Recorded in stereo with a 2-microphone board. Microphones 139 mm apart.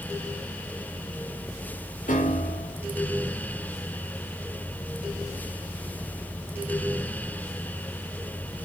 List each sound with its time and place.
2.1 s a piano: 70° left (ahead or behind), 6 m